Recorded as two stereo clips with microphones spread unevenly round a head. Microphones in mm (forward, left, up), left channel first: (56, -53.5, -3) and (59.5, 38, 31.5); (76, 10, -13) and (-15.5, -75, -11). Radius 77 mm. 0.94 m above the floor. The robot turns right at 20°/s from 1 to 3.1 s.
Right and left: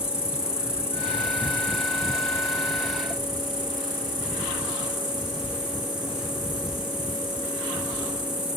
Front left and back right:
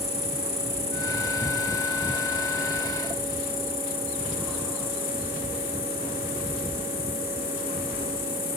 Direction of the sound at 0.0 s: 5° left.